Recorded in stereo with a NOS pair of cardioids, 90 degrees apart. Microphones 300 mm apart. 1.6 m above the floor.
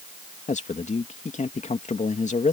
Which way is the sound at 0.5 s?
25° left.